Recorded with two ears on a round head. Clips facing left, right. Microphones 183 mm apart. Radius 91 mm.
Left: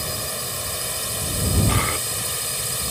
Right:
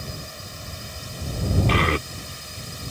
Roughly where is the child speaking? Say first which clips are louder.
Right 3 dB; right.